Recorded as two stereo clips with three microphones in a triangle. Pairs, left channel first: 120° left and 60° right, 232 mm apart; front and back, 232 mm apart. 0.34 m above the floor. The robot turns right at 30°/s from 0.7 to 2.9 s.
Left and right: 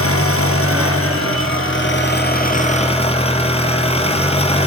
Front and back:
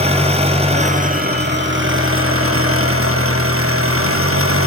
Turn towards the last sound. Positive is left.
turn(degrees=-175)